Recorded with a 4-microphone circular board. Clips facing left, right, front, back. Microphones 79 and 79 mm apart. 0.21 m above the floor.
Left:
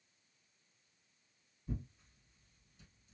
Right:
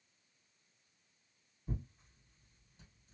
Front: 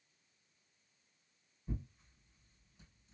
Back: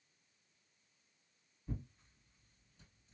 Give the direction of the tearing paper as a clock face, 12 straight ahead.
3 o'clock.